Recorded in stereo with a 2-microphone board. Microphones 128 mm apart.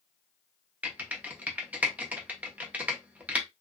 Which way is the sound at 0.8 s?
10° right (ahead or behind).